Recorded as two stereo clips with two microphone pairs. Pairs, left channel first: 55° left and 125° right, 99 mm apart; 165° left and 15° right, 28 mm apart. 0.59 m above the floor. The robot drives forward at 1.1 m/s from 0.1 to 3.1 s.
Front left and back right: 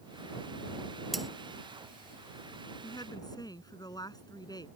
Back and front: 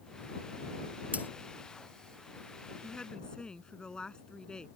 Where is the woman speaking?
100° left; by 4.7 s 105° left.